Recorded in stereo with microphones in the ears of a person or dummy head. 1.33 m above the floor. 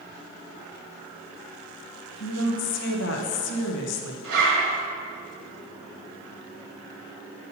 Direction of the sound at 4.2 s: 65° right (ahead or behind).